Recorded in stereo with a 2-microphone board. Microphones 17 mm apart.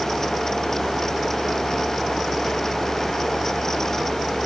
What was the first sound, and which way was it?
Only background noise.